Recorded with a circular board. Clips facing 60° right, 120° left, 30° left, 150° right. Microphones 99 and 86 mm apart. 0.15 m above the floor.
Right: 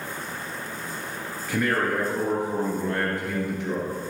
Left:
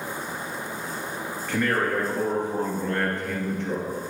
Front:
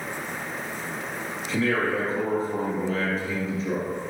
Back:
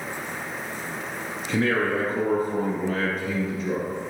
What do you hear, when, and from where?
1.5 s a man speaking: 140° right, 2.5 m